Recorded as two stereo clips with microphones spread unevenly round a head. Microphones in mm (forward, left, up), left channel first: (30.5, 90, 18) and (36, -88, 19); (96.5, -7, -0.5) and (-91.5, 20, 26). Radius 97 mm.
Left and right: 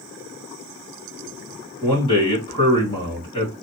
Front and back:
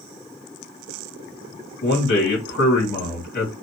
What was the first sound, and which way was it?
A man speaking, 40° left.